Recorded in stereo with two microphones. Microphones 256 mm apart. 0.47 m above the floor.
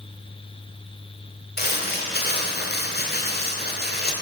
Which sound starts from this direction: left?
Crumpling, at 1.6 s.